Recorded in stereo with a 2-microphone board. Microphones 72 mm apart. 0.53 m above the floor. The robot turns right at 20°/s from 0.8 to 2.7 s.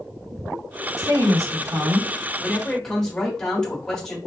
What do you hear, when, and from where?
1.0 s a woman speaking: 45° right (ahead or behind), 1.1 m; by 2.1 s 35° right (ahead or behind), 1.1 m
2.4 s a man speaking: 10° left (ahead or behind), 1.3 m; by 4.2 s 5° left (ahead or behind), 1.3 m